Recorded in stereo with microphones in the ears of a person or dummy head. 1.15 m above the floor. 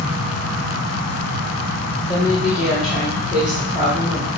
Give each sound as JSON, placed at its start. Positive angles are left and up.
{"t": 2.1, "sound": "a woman speaking", "side_deg": -5, "distance_m": 2.5}